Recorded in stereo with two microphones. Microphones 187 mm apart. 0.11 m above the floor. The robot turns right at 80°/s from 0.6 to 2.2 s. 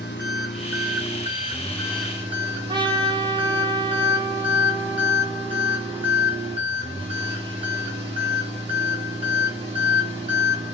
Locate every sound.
0.0 s an engine running: 85° left, 6 m; by 10.8 s 150° right, 6 m
2.7 s a trumpet: 25° right (ahead or behind), 3.5 m